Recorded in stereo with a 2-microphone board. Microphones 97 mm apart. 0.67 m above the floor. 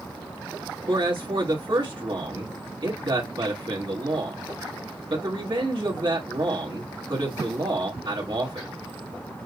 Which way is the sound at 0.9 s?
50° right (ahead or behind).